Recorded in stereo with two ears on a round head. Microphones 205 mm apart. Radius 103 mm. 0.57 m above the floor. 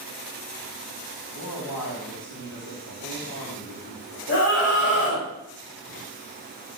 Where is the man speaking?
75° left (ahead or behind), 4.5 m.